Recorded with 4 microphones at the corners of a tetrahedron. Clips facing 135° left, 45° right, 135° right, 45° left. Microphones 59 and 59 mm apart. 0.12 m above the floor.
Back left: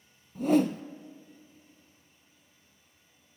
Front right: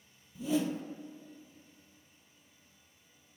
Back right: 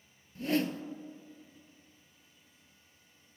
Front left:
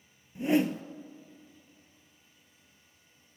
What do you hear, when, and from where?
0.3 s a whoosh: 115° left, 0.5 m